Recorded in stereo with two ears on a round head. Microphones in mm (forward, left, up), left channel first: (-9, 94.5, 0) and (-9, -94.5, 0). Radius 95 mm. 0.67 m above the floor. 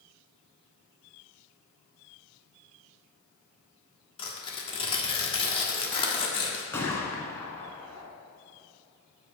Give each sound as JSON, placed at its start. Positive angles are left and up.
{"t": 4.2, "sound": "tearing paper", "side_deg": 25, "distance_m": 1.4}
{"t": 6.7, "sound": "a gunshot", "side_deg": 10, "distance_m": 1.3}